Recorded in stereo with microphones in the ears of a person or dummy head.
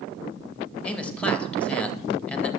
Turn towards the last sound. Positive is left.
turn(degrees=5)  # may be behind; listen again after turning